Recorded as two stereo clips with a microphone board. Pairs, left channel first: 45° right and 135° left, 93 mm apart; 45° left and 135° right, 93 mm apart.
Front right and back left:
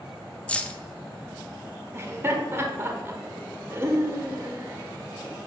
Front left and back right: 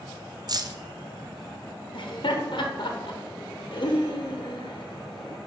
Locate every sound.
0.5 s keys jangling: 115° right, 0.5 m
1.9 s laughter: 70° left, 0.9 m